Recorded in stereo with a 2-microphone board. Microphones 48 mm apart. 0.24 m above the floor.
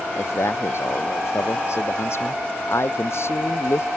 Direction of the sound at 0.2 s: 60° left (ahead or behind).